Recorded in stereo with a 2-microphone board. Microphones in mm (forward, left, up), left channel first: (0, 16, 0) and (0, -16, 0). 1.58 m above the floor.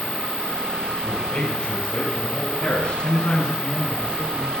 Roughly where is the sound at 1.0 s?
Left.